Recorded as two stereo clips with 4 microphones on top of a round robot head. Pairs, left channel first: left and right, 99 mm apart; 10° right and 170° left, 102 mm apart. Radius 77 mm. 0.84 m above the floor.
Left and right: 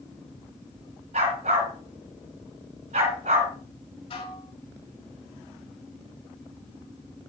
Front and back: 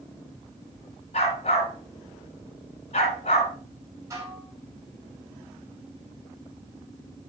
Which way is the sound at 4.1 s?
110° left.